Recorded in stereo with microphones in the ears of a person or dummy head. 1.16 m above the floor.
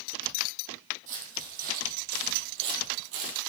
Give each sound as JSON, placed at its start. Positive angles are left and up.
{"t": 1.1, "sound": "footsteps", "side_deg": -40, "distance_m": 3.0}